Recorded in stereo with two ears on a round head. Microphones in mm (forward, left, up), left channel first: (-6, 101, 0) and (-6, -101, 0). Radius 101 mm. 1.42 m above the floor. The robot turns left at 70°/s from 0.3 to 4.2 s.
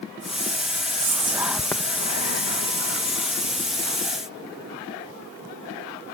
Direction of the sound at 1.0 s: 40° right (ahead or behind).